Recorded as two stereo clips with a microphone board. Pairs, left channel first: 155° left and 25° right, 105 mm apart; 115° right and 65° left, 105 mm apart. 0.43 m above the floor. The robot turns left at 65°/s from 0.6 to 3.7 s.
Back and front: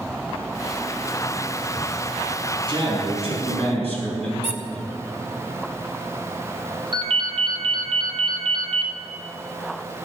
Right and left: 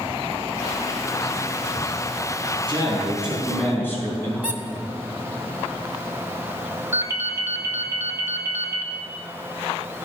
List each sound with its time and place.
2.7 s a man speaking: 25° left, 4 m; by 4.3 s 40° right, 4 m
4.4 s a squeak: 145° left, 1.0 m
6.9 s a ringtone: 5° left, 1.3 m